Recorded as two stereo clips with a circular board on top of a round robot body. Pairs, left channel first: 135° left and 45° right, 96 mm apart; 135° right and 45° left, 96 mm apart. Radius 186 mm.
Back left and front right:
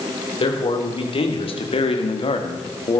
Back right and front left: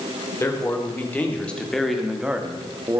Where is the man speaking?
160° left, 4 m; by 3.0 s 100° left, 2 m.